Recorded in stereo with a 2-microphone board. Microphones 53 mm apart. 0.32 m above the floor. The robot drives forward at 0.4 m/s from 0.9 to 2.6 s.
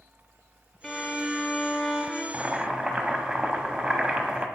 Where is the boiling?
25° right (ahead or behind), 0.6 m; by 4.5 s 20° right (ahead or behind), 0.7 m.